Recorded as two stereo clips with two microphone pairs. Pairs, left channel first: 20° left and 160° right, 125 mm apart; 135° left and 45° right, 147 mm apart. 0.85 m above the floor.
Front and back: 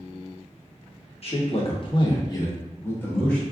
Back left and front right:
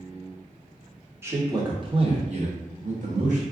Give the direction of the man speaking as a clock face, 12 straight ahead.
11 o'clock.